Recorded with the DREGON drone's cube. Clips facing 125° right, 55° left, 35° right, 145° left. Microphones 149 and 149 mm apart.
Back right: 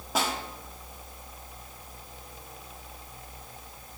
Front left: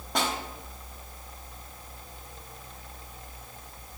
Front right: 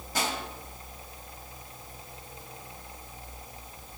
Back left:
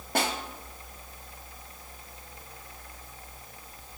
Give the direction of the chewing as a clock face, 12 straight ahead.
I don't hear chewing.